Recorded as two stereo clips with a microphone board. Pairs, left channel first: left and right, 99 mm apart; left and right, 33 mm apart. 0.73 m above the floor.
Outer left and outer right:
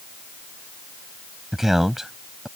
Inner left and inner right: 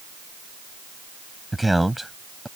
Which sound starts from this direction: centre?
A man speaking, at 1.5 s.